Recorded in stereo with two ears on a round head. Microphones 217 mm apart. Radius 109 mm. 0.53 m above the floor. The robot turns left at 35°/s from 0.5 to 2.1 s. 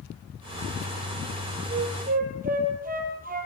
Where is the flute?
20° right (ahead or behind), 4 m; by 3.5 s 35° right (ahead or behind), 4 m.